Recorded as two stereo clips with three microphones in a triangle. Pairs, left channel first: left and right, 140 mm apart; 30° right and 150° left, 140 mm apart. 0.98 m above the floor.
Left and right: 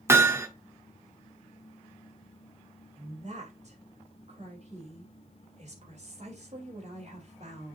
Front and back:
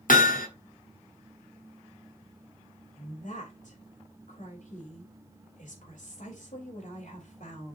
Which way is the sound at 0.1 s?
20° right.